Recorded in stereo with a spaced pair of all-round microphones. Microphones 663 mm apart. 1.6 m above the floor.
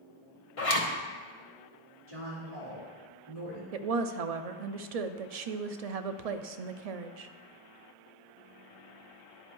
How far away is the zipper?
About 1.0 m.